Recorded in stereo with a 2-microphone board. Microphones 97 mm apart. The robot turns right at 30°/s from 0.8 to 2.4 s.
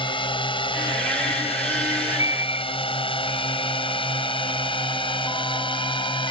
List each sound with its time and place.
0.0 s a drone: 55° left (ahead or behind); by 6.3 s 60° left (ahead or behind)
1.9 s a bird: 45° right (ahead or behind); by 2.6 s 30° right (ahead or behind)